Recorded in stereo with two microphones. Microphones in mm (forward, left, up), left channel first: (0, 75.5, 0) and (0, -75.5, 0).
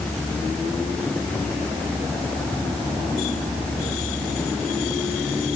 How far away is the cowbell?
No cowbell in this recording.